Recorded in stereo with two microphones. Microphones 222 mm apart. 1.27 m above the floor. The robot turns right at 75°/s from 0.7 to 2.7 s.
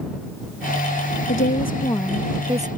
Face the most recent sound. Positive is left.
turn(degrees=-145)